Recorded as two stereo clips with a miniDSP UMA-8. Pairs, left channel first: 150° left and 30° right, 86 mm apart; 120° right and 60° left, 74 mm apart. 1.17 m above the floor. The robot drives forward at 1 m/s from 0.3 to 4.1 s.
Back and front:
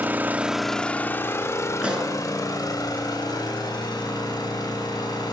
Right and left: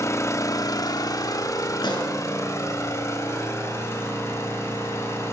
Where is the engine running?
90° right, 0.8 m; by 5.3 s 170° right, 4 m.